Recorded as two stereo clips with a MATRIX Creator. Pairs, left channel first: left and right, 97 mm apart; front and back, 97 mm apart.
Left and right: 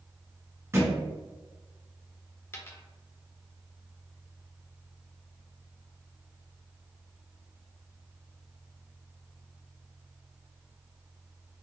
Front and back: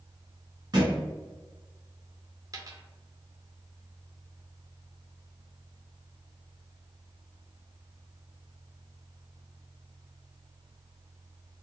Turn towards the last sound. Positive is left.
turn(degrees=145)